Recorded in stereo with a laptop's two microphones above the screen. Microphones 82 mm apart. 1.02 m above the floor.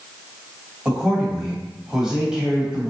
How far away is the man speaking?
About 1.3 m.